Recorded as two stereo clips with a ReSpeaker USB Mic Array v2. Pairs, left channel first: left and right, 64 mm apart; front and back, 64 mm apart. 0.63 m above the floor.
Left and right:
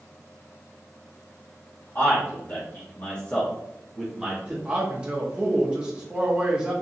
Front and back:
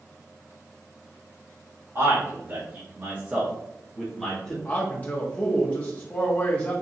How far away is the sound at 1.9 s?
About 1.7 m.